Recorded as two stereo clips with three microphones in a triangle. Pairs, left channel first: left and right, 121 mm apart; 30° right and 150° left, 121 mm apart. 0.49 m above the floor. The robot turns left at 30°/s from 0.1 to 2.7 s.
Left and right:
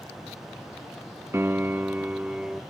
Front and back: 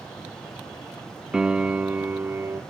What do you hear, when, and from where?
1.3 s a piano: 135° right, 0.7 m; by 2.6 s 170° right, 0.7 m